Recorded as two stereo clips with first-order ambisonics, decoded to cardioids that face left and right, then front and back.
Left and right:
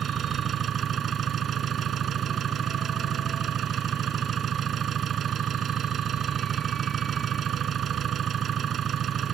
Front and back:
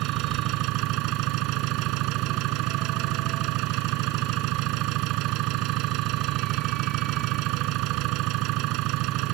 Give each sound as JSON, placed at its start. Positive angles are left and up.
{"t": 0.0, "sound": "an engine running", "azimuth_deg": -150}